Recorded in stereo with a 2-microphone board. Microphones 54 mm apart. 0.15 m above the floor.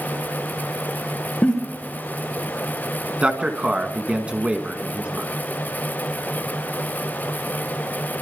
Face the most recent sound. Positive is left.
turn(degrees=-20)  # may be behind; listen again after turning